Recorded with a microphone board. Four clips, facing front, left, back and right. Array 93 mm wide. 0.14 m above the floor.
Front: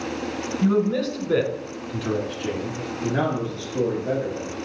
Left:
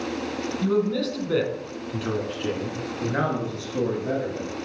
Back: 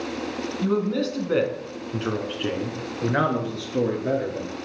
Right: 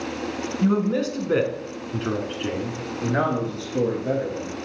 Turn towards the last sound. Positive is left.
turn(degrees=180)